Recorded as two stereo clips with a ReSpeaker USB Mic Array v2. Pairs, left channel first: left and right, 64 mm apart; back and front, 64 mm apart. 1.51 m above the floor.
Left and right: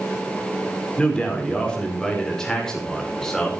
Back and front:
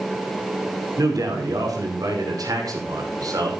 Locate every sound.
1.0 s a man speaking: 15° left, 5 m; by 3.5 s 5° left, 6 m